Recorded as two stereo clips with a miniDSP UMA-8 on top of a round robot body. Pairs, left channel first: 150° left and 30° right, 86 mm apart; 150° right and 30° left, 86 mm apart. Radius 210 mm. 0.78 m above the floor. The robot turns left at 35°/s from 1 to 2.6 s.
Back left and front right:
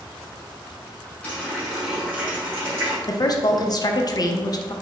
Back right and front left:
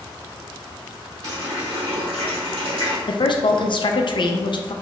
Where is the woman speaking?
170° right, 0.6 m.